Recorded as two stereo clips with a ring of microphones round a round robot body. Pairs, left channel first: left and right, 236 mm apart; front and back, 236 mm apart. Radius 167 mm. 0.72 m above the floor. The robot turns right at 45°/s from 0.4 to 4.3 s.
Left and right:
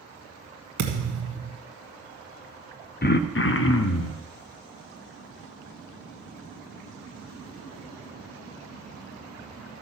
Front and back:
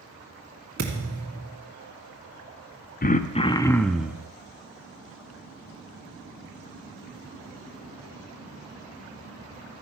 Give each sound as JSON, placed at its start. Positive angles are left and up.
{"t": 0.8, "sound": "a thud", "azimuth_deg": -130, "distance_m": 1.5}
{"t": 3.0, "sound": "throat clearing", "azimuth_deg": 45, "distance_m": 0.7}